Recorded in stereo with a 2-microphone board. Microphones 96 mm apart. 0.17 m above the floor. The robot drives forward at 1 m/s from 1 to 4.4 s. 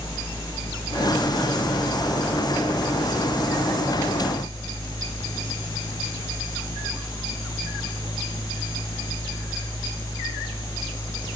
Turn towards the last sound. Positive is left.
No sound to turn to.